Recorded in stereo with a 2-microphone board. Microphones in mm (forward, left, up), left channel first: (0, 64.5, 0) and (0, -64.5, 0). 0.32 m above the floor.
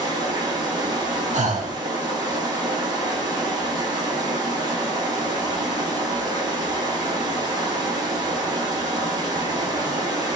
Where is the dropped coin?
No dropped coin in this recording.